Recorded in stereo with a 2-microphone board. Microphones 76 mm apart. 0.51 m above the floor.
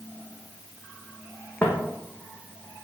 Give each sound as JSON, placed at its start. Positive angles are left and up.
{"t": 1.6, "sound": "footsteps", "side_deg": 20, "distance_m": 1.1}